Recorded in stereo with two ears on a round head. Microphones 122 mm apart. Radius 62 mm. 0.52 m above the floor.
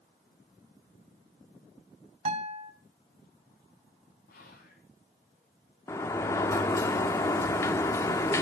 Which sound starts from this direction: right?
A guitar, at 2.2 s.